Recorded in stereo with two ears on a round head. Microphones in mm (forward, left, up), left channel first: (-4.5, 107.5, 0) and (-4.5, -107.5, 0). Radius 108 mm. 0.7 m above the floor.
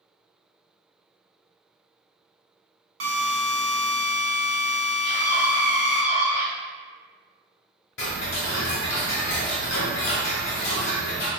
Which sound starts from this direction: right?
A drill, at 3.0 s.